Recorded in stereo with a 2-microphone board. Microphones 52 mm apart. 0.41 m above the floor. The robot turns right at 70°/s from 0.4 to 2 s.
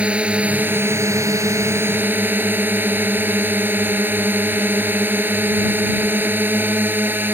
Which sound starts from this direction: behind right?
A drone, at 0.0 s.